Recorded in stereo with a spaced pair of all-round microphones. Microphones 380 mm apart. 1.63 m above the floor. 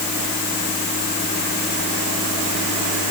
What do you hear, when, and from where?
Only background noise.